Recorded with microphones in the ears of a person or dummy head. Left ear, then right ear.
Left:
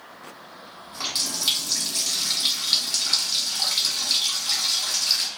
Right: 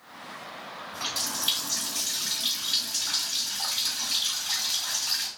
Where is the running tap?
65° left (ahead or behind), 1.7 m.